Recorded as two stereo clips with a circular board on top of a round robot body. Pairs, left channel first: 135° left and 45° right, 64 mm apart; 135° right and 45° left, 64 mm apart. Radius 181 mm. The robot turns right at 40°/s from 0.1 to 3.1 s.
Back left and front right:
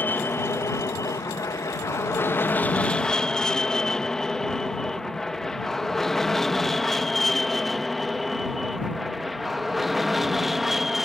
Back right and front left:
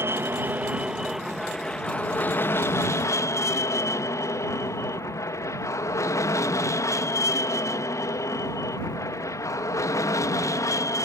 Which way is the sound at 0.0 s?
85° left.